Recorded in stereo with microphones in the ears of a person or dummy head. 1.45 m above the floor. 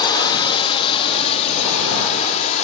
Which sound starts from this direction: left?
A drone, at 0.0 s.